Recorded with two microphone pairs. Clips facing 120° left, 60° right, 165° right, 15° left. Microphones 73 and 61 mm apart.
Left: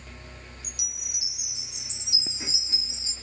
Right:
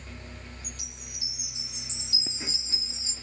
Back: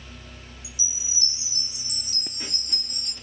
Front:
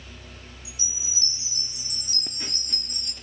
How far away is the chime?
About 8 m.